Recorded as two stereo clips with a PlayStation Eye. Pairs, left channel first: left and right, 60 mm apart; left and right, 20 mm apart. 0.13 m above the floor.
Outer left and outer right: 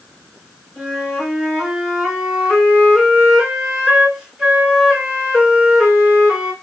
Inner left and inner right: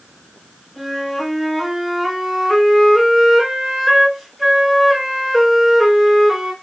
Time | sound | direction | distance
0.8 | a flute | 10° right (ahead or behind) | 2 m